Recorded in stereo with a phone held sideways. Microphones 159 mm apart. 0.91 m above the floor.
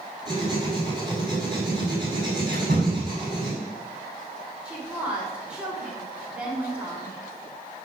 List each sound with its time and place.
0.2 s writing: 30° right (ahead or behind), 5.5 m
2.5 s a door slam: 75° right (ahead or behind), 6 m
4.7 s a woman speaking: 10° right (ahead or behind), 4 m